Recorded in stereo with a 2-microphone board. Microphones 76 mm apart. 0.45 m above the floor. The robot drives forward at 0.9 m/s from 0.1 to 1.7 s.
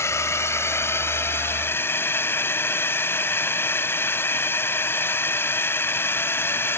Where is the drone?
40° left (ahead or behind); by 6.8 s 30° left (ahead or behind).